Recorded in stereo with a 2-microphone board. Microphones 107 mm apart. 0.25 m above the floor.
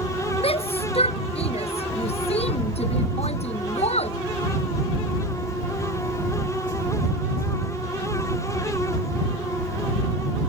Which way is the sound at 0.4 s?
65° left (ahead or behind).